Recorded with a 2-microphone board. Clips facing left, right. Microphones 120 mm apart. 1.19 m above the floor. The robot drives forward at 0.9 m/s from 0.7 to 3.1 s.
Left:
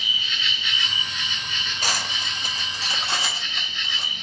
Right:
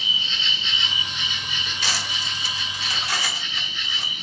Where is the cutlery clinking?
45° left (ahead or behind), 0.6 m; by 4.1 s 25° left (ahead or behind), 1.0 m.